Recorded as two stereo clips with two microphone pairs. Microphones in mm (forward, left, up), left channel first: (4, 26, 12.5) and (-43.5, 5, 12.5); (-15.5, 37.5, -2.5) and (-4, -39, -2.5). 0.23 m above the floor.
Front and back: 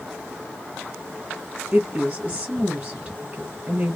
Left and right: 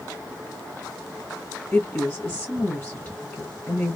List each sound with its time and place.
1.7 s a woman speaking: 145° left, 1.3 m